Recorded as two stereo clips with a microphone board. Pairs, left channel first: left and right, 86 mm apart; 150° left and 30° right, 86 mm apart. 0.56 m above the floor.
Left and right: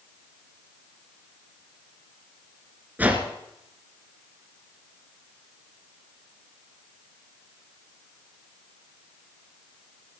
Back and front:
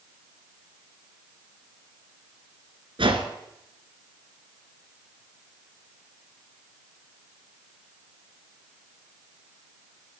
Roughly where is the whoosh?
Ahead.